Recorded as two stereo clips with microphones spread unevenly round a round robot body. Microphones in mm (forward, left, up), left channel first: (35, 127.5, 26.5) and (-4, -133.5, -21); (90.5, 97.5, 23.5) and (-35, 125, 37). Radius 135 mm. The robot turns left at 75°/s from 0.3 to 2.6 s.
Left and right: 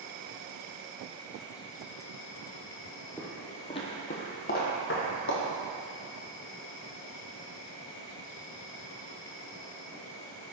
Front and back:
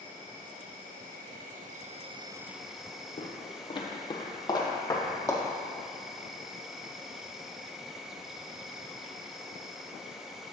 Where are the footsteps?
10° left, 1.3 m; by 5.4 s 55° left, 2 m.